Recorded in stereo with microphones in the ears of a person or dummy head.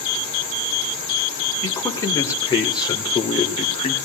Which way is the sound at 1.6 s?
15° left (ahead or behind).